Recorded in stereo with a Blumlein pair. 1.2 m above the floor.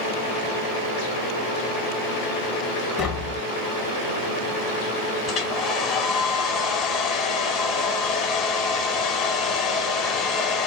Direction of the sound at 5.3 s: 30° left.